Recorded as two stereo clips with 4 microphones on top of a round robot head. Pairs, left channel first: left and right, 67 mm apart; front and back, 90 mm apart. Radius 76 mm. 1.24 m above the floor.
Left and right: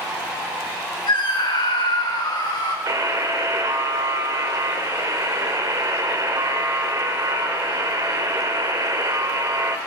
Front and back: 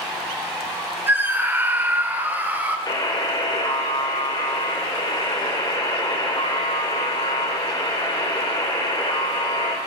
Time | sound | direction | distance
1.1 | a scream | 115° left | 3.5 m
2.9 | a buzzer | 55° right | 2.5 m